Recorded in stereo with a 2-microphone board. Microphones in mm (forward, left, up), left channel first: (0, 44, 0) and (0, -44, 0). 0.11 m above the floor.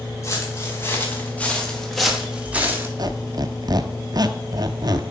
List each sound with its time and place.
0.2 s footsteps: 35° left (ahead or behind), 3 m; by 2.9 s 25° right (ahead or behind), 1.7 m
3.0 s a squeak: 50° right (ahead or behind), 0.5 m